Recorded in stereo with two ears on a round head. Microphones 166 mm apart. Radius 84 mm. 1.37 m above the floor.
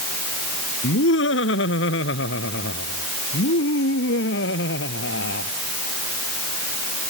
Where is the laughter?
85° left; by 5.5 s 75° left (ahead or behind).